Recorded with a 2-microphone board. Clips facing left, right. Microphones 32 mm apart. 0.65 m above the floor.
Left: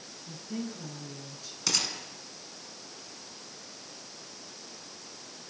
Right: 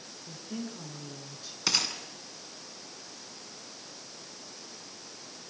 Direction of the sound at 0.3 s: 10° right (ahead or behind).